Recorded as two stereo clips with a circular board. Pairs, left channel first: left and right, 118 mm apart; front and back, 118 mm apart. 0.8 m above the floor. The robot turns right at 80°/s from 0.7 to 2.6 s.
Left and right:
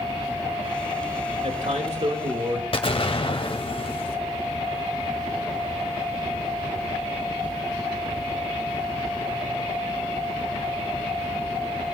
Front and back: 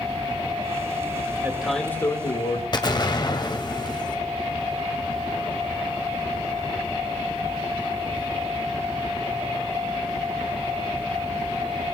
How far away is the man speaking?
About 2.5 m.